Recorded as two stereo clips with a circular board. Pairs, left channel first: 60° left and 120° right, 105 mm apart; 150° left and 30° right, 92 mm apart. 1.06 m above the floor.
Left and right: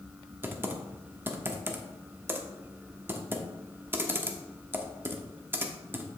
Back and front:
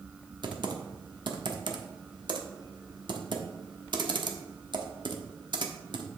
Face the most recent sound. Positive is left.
turn(degrees=-55)